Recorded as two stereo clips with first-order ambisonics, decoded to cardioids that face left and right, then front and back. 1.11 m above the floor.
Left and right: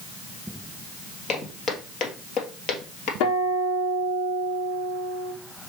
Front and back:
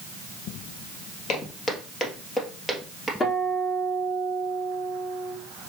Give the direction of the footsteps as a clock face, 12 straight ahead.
11 o'clock.